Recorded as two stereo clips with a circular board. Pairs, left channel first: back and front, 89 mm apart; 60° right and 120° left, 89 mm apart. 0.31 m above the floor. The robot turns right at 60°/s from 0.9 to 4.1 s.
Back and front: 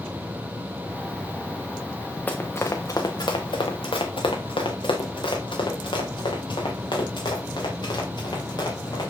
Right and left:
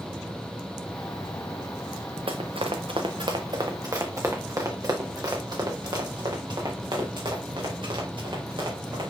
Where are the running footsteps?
110° left, 1.7 m; by 9.1 s 145° left, 5 m.